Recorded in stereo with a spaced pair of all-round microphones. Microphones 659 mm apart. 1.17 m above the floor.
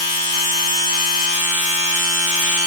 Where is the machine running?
70° right (ahead or behind), 1.7 m.